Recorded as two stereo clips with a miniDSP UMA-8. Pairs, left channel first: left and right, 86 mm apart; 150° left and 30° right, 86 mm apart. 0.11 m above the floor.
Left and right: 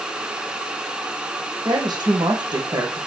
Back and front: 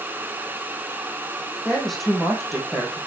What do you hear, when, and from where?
1.6 s a woman speaking: 120° right, 5 m